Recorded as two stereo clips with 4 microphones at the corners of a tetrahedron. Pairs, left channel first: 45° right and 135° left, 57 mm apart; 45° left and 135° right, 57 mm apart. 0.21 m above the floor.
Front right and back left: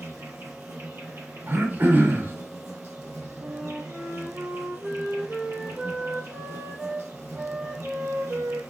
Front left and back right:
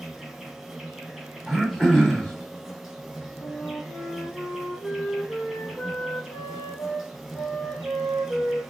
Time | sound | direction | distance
0.0 | an insect | 135° left | 2.5 m
1.5 | throat clearing | 120° left | 1.5 m
3.4 | a flute | 75° left | 2.5 m